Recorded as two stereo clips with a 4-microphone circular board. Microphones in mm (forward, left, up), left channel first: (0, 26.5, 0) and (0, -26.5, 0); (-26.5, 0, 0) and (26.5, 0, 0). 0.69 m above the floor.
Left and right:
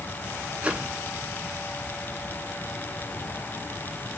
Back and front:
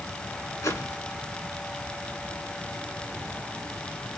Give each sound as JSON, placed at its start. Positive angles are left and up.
{"t": 0.6, "sound": "a whoosh", "azimuth_deg": -160, "distance_m": 2.5}